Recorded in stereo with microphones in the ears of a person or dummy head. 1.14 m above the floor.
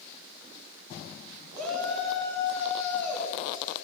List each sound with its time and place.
1.5 s a shout: 5° left (ahead or behind), 4.5 m